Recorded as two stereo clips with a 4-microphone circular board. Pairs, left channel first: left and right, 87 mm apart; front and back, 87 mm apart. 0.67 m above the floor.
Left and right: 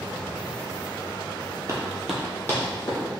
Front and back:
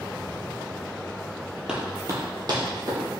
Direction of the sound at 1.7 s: 105° right.